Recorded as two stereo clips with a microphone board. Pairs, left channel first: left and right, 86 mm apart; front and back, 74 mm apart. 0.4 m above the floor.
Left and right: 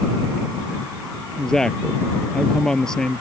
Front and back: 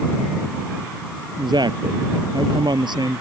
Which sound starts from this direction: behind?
A woman speaking, at 1.4 s.